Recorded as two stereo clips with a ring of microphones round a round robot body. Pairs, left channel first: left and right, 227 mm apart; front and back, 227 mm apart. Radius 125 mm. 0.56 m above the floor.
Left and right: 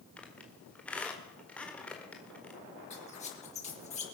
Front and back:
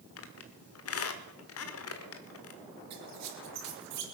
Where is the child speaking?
I don't hear a child speaking.